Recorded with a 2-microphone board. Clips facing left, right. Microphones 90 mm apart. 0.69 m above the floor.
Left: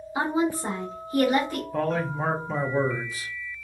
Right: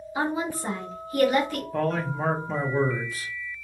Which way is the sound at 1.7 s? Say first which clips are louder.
Even; 5° left (ahead or behind).